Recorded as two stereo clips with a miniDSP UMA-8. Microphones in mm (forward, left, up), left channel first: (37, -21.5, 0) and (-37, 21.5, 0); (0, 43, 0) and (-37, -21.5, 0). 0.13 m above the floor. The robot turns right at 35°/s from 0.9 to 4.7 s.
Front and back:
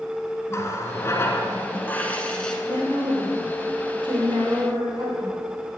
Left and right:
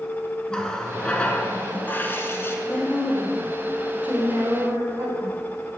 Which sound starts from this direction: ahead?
A running tap, at 0.5 s.